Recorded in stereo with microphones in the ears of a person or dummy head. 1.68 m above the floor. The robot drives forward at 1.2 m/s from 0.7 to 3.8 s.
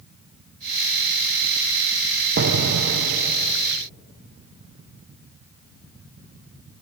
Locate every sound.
2.4 s an explosion: 60° right (ahead or behind), 1.1 m; by 3.5 s 45° right (ahead or behind), 1.3 m